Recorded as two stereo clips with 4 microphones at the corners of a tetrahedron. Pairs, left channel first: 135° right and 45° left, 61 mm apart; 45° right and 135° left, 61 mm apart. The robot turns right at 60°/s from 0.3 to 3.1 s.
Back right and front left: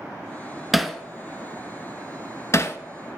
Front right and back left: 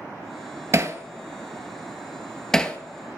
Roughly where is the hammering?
Behind left.